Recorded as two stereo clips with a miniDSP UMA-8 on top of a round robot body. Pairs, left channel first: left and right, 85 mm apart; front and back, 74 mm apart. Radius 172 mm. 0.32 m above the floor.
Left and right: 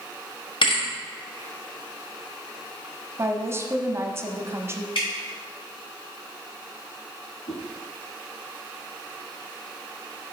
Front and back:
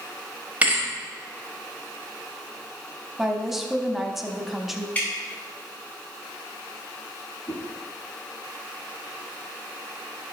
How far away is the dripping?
About 2.5 m.